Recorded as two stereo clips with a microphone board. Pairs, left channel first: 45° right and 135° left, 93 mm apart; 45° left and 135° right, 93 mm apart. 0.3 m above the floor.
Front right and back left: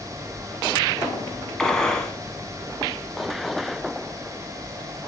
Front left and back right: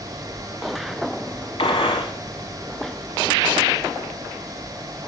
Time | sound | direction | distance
1.6 | a gunshot | 40° left | 0.7 m